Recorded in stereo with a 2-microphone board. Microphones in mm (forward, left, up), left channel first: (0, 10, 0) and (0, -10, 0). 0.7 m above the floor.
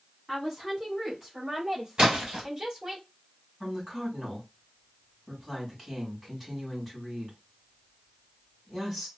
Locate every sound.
0.3 s a woman speaking: 5° left (ahead or behind), 1.6 m; by 3.0 s 30° right (ahead or behind), 3 m
2.0 s a splash: 50° right (ahead or behind), 1.6 m
3.6 s a woman speaking: 10° right (ahead or behind), 2.5 m